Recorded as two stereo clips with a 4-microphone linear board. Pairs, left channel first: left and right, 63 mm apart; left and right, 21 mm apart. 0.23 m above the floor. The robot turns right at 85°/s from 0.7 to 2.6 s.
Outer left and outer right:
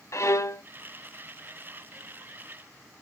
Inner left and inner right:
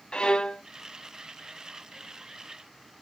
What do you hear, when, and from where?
0.1 s a violin: 50° left (ahead or behind), 0.5 m